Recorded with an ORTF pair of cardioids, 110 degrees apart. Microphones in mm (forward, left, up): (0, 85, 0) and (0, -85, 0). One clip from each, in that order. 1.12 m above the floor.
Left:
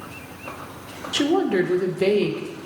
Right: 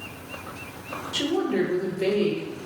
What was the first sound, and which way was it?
A woman speaking, 40° left.